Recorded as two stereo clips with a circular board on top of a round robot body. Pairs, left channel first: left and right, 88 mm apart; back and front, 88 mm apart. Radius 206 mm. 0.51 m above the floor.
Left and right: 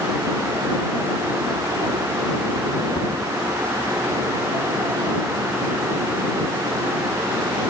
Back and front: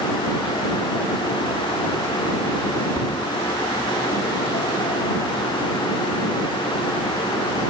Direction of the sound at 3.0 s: 105° left.